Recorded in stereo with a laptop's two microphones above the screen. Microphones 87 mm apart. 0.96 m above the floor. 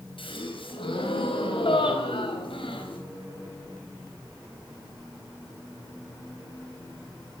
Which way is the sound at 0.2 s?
75° left (ahead or behind).